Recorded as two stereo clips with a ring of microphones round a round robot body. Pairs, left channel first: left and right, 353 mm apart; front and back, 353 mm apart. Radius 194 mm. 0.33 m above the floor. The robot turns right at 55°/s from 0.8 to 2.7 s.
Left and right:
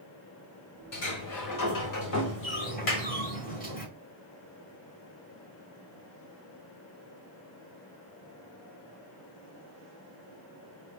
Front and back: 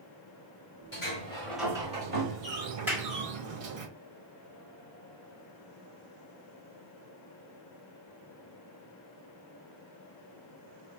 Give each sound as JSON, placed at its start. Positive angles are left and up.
{"t": 0.9, "sound": "a sliding door", "azimuth_deg": 55, "distance_m": 1.5}
{"t": 2.9, "sound": "a clap", "azimuth_deg": 95, "distance_m": 1.7}